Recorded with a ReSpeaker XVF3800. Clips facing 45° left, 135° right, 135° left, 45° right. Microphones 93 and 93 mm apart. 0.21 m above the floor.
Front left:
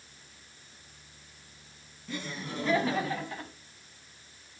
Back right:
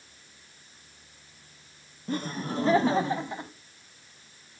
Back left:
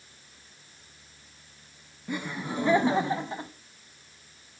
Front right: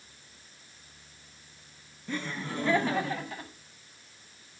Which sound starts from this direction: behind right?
Laughter, at 2.1 s.